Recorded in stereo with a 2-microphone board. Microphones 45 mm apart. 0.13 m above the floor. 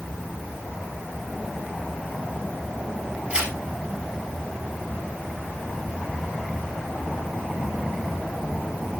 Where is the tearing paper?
20° right (ahead or behind), 3 m.